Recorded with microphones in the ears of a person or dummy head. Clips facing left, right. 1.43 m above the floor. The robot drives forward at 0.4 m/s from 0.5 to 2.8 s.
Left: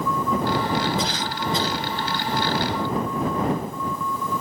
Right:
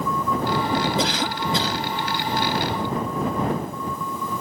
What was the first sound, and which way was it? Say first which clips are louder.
A cough: right 3 dB; 50° right (ahead or behind).